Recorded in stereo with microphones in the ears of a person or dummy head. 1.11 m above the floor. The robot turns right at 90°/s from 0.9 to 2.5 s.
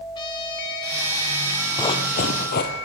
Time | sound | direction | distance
0.1 | a trumpet | 25° left | 2.5 m
1.8 | running footsteps | 30° left | 1.6 m